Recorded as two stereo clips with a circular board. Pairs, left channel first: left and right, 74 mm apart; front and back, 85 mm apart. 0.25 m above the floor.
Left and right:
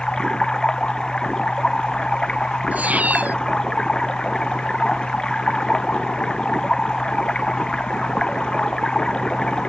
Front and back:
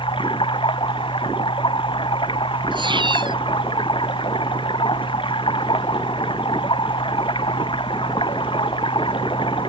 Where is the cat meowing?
160° right.